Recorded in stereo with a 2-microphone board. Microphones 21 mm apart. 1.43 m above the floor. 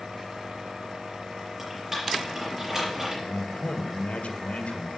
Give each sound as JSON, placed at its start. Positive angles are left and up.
{"t": 1.6, "sound": "typing on a keyboard", "side_deg": -10, "distance_m": 6.0}
{"t": 3.2, "sound": "a man speaking", "side_deg": 85, "distance_m": 1.7}